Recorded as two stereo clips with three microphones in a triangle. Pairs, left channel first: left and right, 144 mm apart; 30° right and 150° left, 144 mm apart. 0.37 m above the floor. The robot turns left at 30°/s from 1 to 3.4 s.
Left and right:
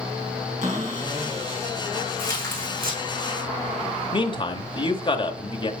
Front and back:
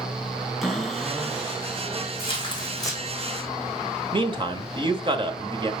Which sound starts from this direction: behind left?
A man speaking, at 4.1 s.